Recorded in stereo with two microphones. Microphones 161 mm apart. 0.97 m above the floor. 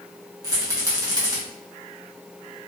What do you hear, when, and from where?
0.4 s a rattle: 20° right (ahead or behind), 1.3 m